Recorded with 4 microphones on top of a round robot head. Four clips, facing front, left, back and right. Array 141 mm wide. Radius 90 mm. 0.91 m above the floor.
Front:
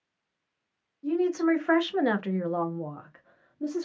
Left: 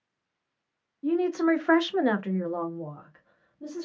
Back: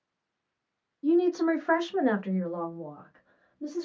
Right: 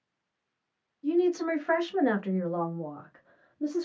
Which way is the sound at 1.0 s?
115° left.